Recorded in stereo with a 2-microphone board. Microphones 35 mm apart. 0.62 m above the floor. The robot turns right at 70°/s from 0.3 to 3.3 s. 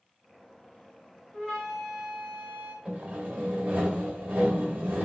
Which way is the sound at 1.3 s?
145° left.